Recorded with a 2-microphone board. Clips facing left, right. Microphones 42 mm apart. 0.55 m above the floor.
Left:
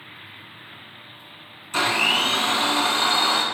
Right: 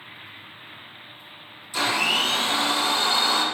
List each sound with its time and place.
1.7 s a blender: 55° left (ahead or behind), 0.7 m